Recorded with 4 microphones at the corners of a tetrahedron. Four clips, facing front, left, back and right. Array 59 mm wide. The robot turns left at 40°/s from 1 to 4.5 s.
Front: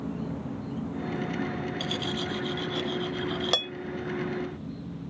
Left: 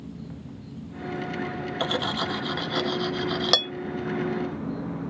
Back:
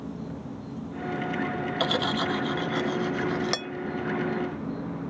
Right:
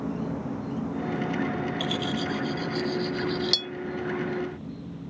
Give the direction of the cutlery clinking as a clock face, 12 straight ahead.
7 o'clock.